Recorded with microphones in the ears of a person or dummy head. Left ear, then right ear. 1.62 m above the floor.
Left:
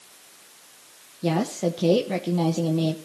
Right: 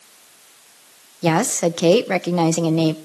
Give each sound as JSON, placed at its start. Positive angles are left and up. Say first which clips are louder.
{"t": 1.2, "sound": "a woman speaking", "louder": "right 7 dB", "side_deg": -50, "distance_m": 1.1}